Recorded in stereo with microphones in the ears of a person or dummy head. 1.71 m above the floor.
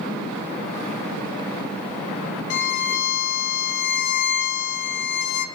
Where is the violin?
65° left (ahead or behind), 2.5 m.